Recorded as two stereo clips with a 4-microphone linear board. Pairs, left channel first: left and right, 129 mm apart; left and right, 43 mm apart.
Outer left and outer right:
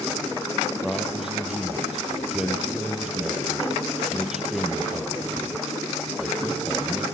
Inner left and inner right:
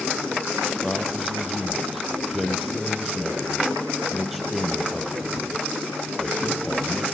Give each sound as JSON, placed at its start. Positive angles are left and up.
{"t": 0.8, "sound": "a man speaking", "side_deg": -5, "distance_m": 7.0}